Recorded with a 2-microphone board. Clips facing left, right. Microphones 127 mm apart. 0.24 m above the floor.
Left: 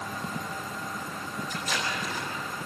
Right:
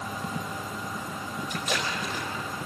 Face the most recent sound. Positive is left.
turn(degrees=-75)  # may be behind; listen again after turning